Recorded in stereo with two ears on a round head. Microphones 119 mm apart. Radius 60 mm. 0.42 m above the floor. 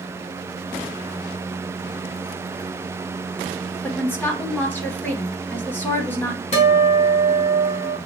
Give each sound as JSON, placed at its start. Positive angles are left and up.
{"t": 3.8, "sound": "a woman speaking", "side_deg": 15, "distance_m": 1.0}
{"t": 6.5, "sound": "a guitar", "side_deg": 55, "distance_m": 1.9}